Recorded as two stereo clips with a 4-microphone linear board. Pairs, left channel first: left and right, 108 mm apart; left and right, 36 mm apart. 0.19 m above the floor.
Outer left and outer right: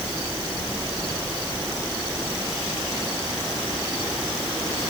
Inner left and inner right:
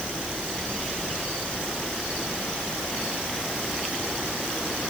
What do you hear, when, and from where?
Only background noise.